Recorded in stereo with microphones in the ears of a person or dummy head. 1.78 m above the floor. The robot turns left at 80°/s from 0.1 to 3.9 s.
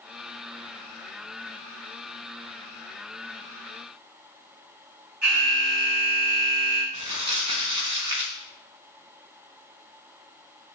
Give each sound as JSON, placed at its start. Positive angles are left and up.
{"t": 5.2, "sound": "an alarm", "side_deg": -55, "distance_m": 3.5}
{"t": 6.9, "sound": "crumpling", "side_deg": -25, "distance_m": 1.4}